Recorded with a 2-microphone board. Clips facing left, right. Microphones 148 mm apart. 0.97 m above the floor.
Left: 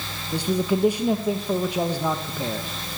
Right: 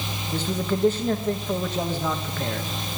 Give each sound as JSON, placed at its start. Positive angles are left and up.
{"t": 0.3, "sound": "a man speaking", "side_deg": 10, "distance_m": 0.8}